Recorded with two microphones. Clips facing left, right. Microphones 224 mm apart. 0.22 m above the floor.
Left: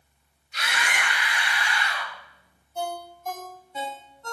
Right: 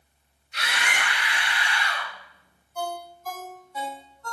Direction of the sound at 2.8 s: 25° left (ahead or behind).